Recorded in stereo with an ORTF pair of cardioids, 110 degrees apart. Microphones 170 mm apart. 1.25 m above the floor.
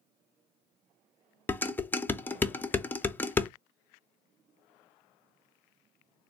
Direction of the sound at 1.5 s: 10° left.